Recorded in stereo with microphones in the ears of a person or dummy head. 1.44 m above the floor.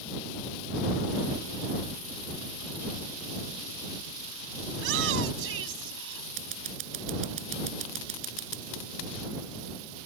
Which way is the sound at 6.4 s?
40° right (ahead or behind).